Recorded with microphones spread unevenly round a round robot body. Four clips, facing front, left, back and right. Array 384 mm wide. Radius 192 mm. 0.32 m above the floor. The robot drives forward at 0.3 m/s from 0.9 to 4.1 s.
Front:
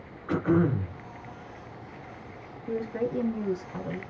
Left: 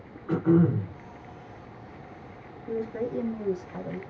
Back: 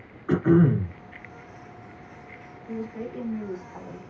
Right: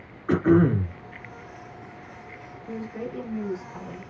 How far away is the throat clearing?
About 1.9 m.